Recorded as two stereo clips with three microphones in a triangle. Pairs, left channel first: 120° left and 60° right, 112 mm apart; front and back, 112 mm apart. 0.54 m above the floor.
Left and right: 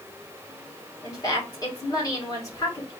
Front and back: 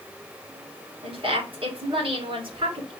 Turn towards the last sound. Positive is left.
turn(degrees=170)